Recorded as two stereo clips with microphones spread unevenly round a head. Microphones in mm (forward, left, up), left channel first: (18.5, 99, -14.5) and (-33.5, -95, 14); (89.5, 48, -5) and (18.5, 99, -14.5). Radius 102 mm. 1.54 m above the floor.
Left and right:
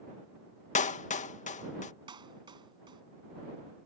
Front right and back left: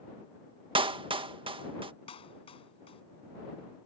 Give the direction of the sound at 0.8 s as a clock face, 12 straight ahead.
8 o'clock.